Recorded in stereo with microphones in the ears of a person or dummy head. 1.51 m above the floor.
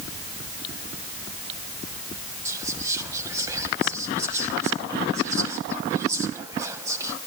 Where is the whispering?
15° right (ahead or behind), 0.8 m.